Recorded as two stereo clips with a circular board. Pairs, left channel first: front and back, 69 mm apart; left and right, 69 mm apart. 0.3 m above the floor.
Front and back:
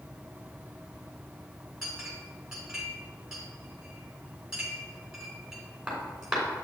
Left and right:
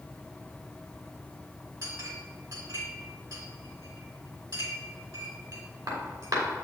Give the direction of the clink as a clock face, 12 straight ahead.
3 o'clock.